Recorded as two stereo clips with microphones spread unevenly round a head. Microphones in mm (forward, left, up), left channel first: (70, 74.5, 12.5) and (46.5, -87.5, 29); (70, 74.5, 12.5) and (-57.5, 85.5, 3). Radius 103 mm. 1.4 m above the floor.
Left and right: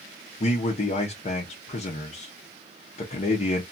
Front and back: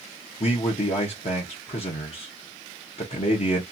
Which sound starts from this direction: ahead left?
A man speaking, at 0.4 s.